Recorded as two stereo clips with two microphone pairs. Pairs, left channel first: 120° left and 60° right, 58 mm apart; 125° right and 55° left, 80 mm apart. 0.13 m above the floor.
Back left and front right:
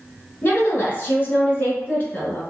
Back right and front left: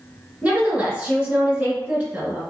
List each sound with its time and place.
0.4 s a woman speaking: 120° left, 1.9 m